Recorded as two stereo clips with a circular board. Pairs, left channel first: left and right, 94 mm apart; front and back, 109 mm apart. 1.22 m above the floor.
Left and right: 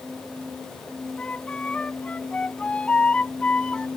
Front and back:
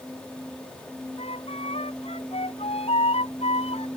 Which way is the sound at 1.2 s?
15° left.